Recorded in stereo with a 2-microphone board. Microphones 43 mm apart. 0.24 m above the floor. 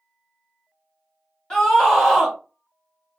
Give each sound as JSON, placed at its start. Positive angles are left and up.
{"t": 1.5, "sound": "a scream", "side_deg": 15, "distance_m": 1.3}